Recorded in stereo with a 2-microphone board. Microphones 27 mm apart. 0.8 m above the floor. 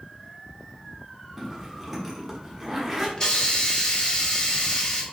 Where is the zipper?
5° right (ahead or behind), 0.8 m.